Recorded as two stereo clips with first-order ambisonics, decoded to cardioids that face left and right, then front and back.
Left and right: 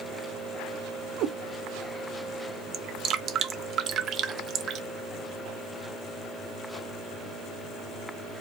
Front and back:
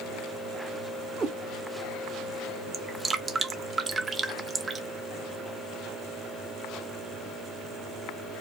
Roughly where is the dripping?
Behind right.